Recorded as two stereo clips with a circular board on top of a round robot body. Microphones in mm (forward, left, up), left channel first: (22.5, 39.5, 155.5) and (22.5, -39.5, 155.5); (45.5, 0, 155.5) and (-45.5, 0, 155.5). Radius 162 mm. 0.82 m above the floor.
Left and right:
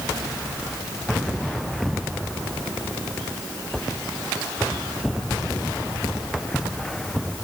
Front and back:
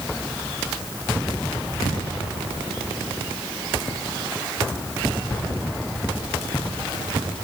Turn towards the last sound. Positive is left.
No sound to turn to.